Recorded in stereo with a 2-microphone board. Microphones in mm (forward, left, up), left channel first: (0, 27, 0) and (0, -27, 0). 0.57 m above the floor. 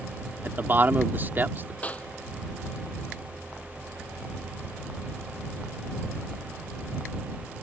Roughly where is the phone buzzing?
I don't hear a phone buzzing.